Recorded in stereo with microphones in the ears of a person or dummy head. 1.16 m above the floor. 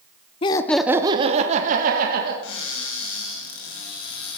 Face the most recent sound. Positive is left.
turn(degrees=75)  # may be behind; listen again after turning